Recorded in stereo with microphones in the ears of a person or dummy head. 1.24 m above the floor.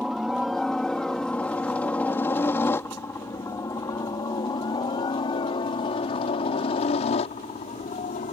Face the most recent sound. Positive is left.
turn(degrees=45)  # may be behind; listen again after turning